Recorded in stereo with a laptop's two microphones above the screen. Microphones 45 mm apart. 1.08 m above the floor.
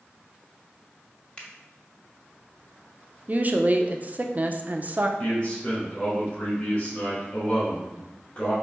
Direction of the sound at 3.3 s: 35° right (ahead or behind).